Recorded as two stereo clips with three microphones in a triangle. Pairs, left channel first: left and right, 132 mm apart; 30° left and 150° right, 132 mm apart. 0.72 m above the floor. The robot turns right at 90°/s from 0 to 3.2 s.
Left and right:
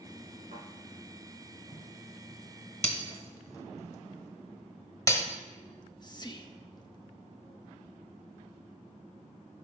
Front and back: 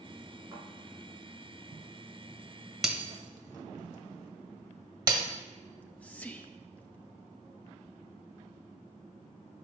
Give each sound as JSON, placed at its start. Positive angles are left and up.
{"t": 0.5, "sound": "a thud", "azimuth_deg": -90, "distance_m": 5.5}
{"t": 2.8, "sound": "breaking glass", "azimuth_deg": 125, "distance_m": 1.3}
{"t": 5.7, "sound": "whispering", "azimuth_deg": 100, "distance_m": 0.9}